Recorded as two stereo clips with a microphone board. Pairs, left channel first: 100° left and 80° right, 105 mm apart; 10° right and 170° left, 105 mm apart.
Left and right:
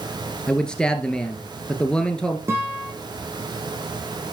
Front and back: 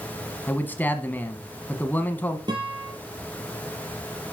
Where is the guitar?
145° right, 3 m.